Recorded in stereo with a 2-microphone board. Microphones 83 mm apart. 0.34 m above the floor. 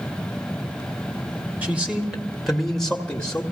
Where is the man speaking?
20° right (ahead or behind), 1.4 m; by 3.4 s 20° left (ahead or behind), 1.3 m.